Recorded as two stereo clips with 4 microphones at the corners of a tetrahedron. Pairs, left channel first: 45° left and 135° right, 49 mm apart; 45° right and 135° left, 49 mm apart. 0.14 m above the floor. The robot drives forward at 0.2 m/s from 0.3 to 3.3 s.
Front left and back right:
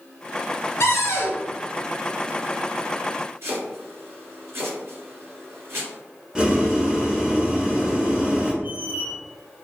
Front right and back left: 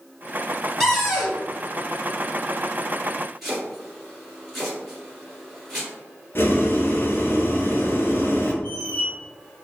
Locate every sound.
0.8 s a cupboard door: 40° left, 0.8 m; by 1.4 s 45° left, 0.7 m
3.4 s chopping: 135° right, 1.7 m
6.3 s boiling: 65° right, 0.6 m
8.6 s a squeak: 85° right, 1.2 m